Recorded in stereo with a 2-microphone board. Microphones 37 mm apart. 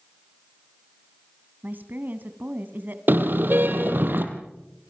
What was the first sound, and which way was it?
A woman speaking, 50° right (ahead or behind).